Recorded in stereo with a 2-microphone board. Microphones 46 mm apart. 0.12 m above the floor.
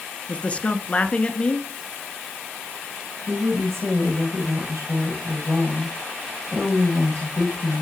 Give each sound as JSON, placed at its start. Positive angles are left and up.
{"t": 0.3, "sound": "a man speaking", "side_deg": 30, "distance_m": 1.6}
{"t": 3.3, "sound": "a woman speaking", "side_deg": -70, "distance_m": 10.0}